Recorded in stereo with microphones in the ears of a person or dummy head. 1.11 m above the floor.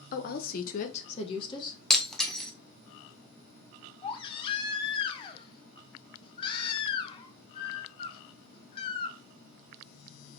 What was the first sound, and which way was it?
A woman speaking, 45° left (ahead or behind).